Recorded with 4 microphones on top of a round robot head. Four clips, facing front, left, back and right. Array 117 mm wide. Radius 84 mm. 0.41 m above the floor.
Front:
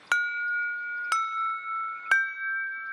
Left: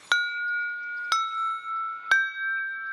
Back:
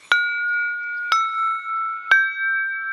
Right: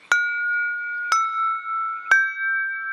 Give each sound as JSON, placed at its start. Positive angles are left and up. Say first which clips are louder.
{"t": 0.1, "sound": "an alarm", "louder": "right 5 dB, back 7 dB", "azimuth_deg": -150, "distance_m": 1.0}